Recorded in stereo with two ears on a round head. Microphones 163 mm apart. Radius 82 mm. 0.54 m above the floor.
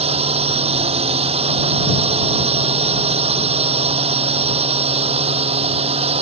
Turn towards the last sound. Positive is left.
turn(degrees=-35)  # may be behind; listen again after turning